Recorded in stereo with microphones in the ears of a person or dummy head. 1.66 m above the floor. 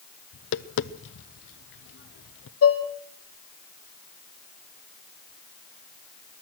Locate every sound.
0.3 s tapping: 70° left (ahead or behind), 0.8 m
2.6 s dishes clattering: 75° left (ahead or behind), 2.5 m